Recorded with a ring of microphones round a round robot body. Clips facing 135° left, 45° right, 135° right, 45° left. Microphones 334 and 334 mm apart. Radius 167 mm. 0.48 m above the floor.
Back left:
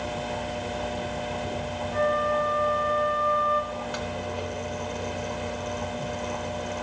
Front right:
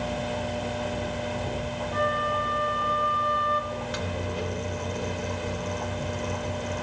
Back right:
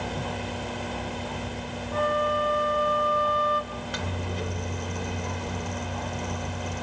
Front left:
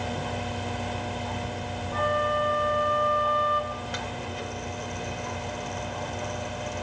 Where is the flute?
105° right, 1.4 m.